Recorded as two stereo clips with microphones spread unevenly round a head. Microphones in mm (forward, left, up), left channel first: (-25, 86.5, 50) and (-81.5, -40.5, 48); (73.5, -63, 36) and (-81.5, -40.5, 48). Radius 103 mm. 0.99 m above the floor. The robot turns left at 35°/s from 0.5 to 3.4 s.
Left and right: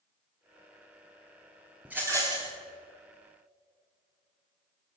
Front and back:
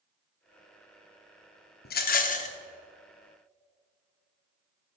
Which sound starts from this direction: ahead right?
A rattle, at 1.9 s.